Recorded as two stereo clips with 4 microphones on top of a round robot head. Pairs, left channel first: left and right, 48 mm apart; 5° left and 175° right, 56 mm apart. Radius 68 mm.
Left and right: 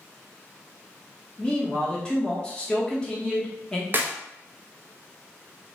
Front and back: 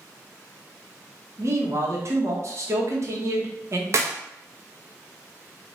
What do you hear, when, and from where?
1.4 s a man speaking: 160° left, 1.3 m
3.9 s a clap: 140° right, 0.7 m